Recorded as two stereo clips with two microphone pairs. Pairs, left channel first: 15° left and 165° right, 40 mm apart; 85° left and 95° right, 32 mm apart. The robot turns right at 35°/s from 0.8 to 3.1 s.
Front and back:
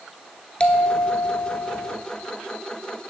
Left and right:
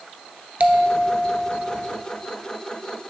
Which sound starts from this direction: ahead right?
A bell, at 0.6 s.